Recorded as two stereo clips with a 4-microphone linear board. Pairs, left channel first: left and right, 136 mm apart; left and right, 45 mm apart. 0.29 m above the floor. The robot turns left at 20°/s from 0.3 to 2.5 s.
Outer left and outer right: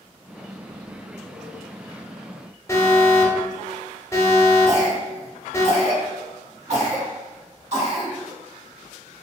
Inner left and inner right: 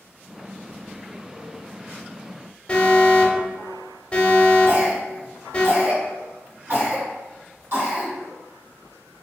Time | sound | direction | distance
2.7 | an alarm | 20° left (ahead or behind) | 0.6 m
4.7 | a cough | 60° right (ahead or behind) | 1.7 m